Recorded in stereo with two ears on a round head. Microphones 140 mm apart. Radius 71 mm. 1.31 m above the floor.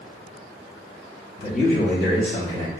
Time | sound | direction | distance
1.4 | a man speaking | 65° left (ahead or behind) | 2.0 m